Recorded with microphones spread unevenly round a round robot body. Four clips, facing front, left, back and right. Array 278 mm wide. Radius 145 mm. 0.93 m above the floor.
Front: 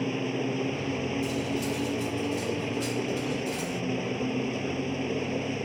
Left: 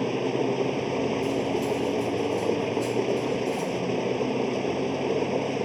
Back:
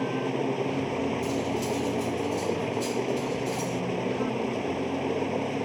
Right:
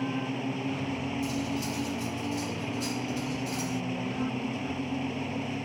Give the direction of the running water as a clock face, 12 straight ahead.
9 o'clock.